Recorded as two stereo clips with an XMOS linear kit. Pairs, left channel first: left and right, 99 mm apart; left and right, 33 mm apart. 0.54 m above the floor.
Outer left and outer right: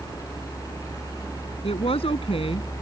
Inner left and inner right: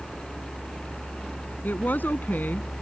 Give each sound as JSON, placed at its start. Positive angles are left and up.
{"t": 1.6, "sound": "a woman speaking", "side_deg": 80}